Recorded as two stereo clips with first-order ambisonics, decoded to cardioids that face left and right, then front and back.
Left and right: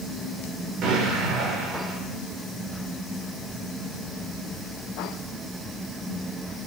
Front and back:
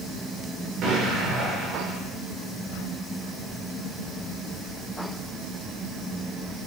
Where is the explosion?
135° right, 8 m.